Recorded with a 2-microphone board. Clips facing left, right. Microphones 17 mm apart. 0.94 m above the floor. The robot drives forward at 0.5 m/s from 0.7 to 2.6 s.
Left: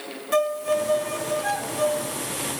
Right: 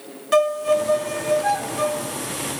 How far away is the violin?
About 0.9 m.